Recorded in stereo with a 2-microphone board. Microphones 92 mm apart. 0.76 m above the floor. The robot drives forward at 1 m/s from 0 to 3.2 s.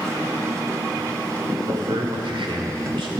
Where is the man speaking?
65° right (ahead or behind), 2.5 m; by 3.1 s 70° right (ahead or behind), 2.5 m.